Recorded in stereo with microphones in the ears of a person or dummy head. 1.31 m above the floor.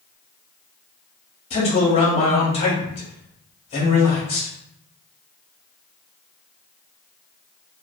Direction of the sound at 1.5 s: 25° left (ahead or behind).